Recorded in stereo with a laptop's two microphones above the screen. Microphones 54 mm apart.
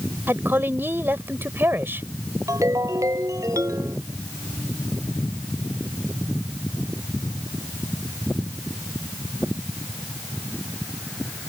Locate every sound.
0.3 s a woman speaking: 45° right (ahead or behind)
2.5 s a ringtone: 90° right